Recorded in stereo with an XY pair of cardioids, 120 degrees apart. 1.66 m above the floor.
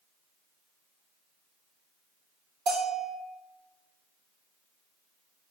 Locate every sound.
2.7 s a bell: 55° right, 2.5 m